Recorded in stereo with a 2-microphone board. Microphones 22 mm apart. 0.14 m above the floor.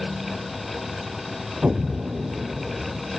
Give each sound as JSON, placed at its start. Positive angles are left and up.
{"t": 1.6, "sound": "an explosion", "side_deg": -65}